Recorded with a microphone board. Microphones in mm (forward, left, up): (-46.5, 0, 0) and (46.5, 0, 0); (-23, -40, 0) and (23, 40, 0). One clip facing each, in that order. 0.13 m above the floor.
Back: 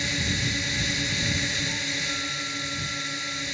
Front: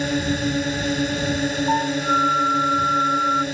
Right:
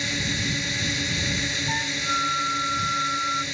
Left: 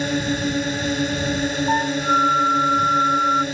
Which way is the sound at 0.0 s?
30° left.